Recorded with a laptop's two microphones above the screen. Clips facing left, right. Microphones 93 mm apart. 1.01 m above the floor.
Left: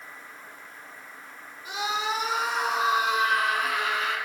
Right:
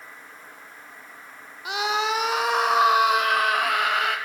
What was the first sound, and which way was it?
A scream, 80° right.